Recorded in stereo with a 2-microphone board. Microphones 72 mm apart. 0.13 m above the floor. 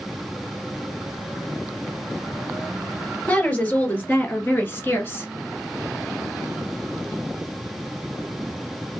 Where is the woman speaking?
20° left (ahead or behind), 2.5 m; by 5.3 s 30° left (ahead or behind), 1.4 m.